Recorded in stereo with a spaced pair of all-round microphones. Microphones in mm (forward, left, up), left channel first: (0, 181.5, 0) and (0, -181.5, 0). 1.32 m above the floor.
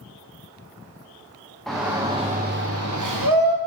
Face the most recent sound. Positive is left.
turn(degrees=-75)  # may be behind; listen again after turning